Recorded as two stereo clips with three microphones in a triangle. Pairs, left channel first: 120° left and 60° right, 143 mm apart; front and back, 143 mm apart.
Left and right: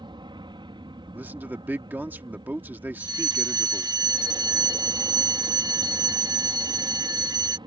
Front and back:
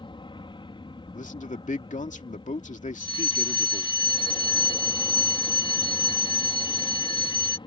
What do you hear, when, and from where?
0.0 s an aircraft: 30° right
1.1 s a man speaking: 15° left
3.0 s a fire alarm: 20° right